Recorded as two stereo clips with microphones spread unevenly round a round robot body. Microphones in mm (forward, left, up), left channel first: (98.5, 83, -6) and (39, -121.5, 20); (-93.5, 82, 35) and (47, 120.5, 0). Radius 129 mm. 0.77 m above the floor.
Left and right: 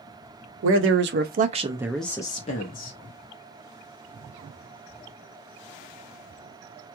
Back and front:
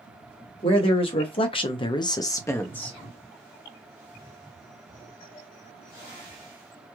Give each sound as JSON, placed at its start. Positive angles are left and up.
{"t": 0.6, "sound": "a man speaking", "azimuth_deg": -100, "distance_m": 0.7}